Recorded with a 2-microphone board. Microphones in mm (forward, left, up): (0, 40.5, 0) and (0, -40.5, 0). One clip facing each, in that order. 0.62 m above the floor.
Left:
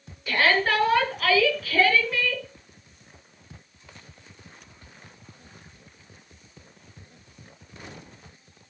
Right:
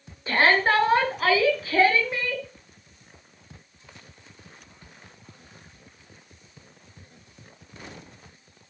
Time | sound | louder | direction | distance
0.3 | a shout | right 2 dB | 30° right (ahead or behind) | 6 m